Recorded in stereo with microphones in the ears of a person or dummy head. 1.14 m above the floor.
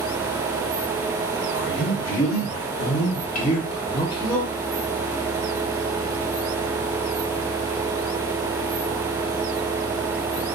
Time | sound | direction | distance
1.5 | a man speaking | 65° left (ahead or behind) | 1.3 m